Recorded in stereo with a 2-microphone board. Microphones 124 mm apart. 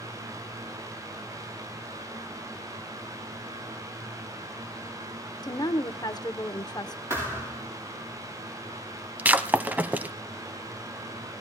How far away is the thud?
About 7.5 m.